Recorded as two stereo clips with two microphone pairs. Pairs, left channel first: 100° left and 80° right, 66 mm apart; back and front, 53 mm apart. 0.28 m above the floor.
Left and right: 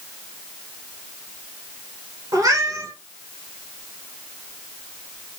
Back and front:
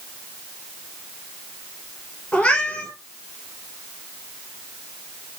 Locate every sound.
2.3 s a cat meowing: 110° right, 2.5 m